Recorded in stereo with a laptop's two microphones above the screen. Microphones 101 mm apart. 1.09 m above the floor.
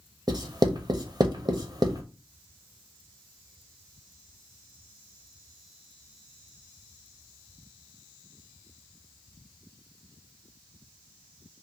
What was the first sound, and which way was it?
Writing, 50° right (ahead or behind).